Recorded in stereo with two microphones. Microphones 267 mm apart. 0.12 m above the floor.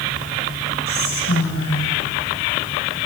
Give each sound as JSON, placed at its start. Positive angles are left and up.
{"t": 0.9, "sound": "whispering", "side_deg": 60, "distance_m": 6.0}